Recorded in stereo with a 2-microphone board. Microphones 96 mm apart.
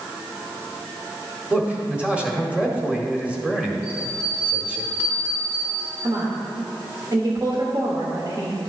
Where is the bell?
25° right (ahead or behind), 3 m.